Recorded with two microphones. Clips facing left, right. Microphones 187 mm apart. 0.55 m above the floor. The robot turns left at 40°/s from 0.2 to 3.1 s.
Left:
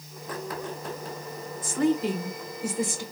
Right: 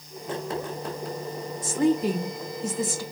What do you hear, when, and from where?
1.6 s a woman speaking: 150° right, 1.8 m; by 3.0 s 155° left, 1.8 m